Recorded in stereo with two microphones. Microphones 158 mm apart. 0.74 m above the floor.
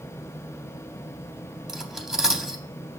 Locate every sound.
1.7 s cutlery clinking: 5° right (ahead or behind), 0.6 m